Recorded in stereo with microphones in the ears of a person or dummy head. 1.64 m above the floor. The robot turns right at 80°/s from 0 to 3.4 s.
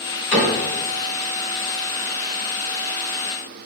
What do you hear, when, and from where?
0.3 s a cupboard door: 65° left (ahead or behind), 1.9 m; by 0.6 s 40° left (ahead or behind), 1.9 m